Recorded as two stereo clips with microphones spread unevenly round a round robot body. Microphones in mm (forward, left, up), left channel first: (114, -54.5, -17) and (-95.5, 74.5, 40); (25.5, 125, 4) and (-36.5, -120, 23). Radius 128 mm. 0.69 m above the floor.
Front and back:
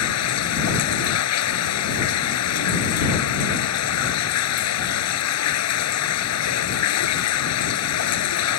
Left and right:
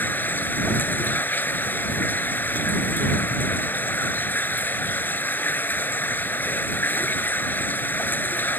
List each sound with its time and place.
0.0 s running water: 10° right